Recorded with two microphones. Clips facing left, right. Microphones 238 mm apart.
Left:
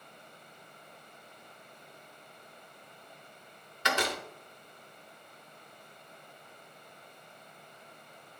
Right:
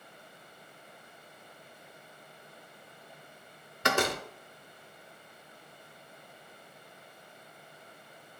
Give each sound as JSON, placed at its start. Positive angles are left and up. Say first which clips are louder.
{"t": 3.8, "sound": "a door slam", "louder": "right 4 dB", "side_deg": -50, "distance_m": 0.7}